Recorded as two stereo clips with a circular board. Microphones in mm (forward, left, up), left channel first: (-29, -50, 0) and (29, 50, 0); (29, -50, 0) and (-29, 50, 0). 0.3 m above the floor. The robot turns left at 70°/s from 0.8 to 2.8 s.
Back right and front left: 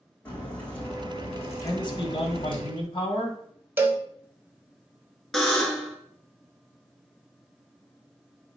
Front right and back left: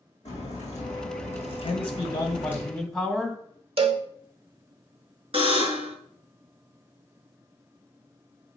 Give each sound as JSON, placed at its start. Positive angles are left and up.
{"t": 0.2, "sound": "a crack", "azimuth_deg": -45, "distance_m": 4.0}
{"t": 1.6, "sound": "a man speaking", "azimuth_deg": -65, "distance_m": 2.0}
{"t": 3.8, "sound": "a cowbell", "azimuth_deg": 125, "distance_m": 0.9}
{"t": 5.3, "sound": "a buzzer", "azimuth_deg": 155, "distance_m": 1.8}